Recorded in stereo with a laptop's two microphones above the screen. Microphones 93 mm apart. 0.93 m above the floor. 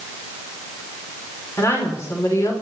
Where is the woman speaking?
30° left (ahead or behind), 3 m.